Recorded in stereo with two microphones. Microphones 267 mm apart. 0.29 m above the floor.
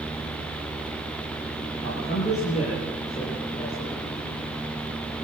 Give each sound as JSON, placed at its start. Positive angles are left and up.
{"t": 1.8, "sound": "a man speaking", "side_deg": 25, "distance_m": 8.0}